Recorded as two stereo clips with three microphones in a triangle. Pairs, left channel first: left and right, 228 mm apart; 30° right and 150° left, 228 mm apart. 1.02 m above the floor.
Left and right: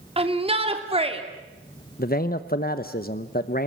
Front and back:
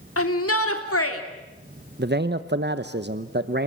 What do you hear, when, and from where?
0.2 s a shout: 25° right, 2.5 m
2.0 s a man speaking: 125° left, 0.8 m